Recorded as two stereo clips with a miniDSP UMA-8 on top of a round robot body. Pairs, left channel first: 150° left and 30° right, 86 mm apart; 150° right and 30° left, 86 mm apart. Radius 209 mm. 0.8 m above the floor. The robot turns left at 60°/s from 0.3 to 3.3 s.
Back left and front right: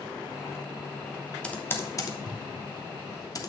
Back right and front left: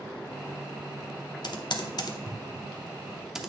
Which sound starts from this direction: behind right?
Typing on a keyboard, at 1.4 s.